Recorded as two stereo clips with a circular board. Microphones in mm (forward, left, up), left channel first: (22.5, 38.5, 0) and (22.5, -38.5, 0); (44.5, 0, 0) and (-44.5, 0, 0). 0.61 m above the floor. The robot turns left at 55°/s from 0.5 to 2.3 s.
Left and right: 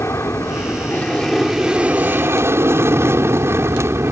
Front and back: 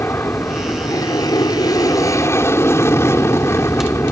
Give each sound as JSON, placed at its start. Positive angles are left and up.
{"t": 0.0, "sound": "an aircraft", "azimuth_deg": 50}